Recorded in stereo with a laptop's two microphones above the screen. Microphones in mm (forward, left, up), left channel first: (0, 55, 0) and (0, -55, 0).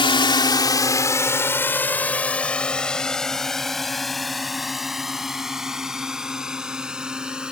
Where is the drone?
55° left (ahead or behind); by 7.5 s 10° right (ahead or behind).